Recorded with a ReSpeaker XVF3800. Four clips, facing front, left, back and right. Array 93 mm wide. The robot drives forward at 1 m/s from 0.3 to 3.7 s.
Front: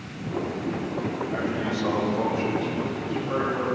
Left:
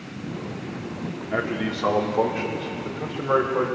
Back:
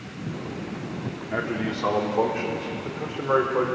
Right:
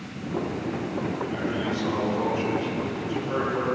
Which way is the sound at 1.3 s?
125° left.